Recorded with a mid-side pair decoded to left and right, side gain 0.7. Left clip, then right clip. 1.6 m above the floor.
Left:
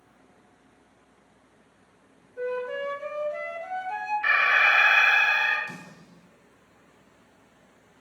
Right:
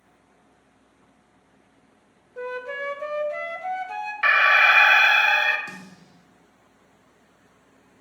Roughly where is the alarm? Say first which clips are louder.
Right 4 dB; ahead right.